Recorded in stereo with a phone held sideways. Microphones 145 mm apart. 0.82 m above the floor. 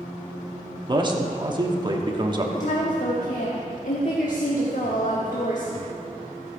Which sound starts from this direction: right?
A man speaking, at 0.9 s.